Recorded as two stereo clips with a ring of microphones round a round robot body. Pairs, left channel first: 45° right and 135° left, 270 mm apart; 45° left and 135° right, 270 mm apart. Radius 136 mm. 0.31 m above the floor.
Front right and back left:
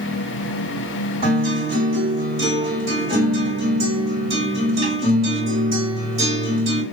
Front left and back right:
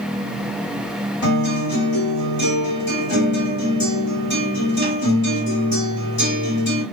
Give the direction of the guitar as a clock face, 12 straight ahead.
10 o'clock.